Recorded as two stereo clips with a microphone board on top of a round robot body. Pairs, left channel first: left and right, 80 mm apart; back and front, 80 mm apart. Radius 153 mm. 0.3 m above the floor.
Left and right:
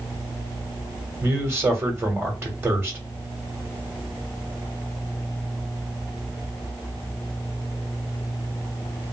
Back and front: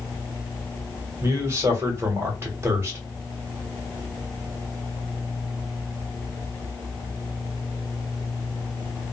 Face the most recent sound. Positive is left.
turn(degrees=-40)